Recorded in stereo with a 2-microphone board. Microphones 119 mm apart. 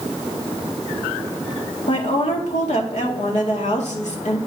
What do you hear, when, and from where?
1.9 s a woman speaking: 75° left (ahead or behind), 1.9 m